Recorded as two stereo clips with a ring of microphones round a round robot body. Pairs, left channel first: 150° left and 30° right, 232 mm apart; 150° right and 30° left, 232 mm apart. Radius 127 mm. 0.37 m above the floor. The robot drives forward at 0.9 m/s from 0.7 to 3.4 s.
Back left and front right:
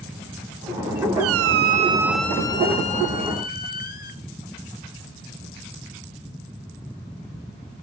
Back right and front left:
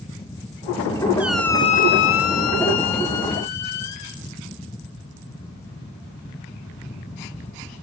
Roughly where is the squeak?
Ahead right.